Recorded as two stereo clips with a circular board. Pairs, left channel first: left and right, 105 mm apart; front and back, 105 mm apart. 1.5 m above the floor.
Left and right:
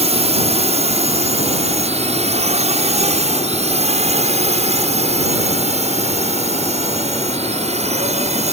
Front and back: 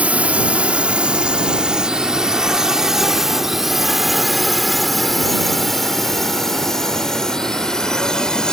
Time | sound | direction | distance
0.0 | a drone | 100° right | ?